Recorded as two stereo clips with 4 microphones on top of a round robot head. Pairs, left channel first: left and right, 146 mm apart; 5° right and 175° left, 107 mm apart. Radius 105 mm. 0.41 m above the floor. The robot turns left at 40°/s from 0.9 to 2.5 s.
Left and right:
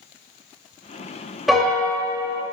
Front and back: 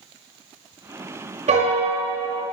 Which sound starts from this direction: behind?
A piano, at 1.5 s.